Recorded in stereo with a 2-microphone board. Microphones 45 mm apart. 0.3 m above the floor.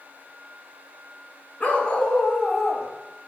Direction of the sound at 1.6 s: 35° left (ahead or behind).